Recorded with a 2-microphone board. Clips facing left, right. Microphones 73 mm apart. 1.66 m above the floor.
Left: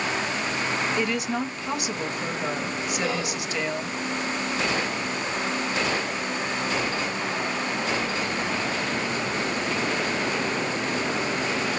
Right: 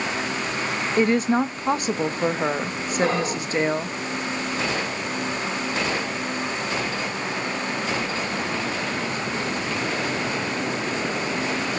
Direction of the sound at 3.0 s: 45° right (ahead or behind).